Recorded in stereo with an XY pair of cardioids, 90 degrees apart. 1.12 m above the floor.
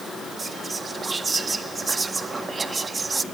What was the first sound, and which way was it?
Whispering, 35° right.